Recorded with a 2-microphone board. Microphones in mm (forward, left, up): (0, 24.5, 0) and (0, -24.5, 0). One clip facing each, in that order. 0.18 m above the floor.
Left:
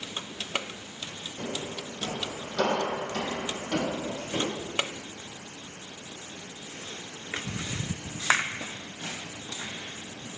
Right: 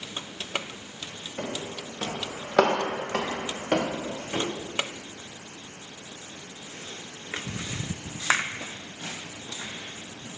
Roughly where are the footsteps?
Right.